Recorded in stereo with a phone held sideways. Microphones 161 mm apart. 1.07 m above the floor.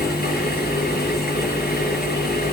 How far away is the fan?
About 7 m.